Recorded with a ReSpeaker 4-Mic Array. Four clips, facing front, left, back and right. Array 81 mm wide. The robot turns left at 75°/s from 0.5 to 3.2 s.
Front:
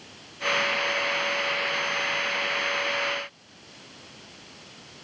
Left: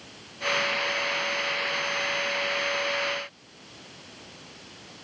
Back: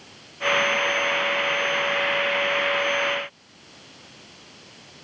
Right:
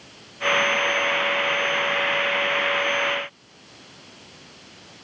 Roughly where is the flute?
No flute in this recording.